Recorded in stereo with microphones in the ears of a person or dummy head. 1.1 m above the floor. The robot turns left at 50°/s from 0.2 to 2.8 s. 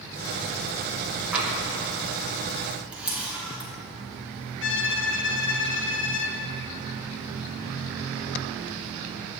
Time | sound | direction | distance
1.3 | tapping | 5° right (ahead or behind) | 1.0 m
2.9 | a camera shutter | 5° right (ahead or behind) | 1.1 m
4.6 | a violin | 60° left (ahead or behind) | 0.7 m